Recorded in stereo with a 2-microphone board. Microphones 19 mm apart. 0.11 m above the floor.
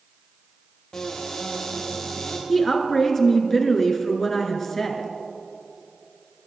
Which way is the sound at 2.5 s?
20° left (ahead or behind).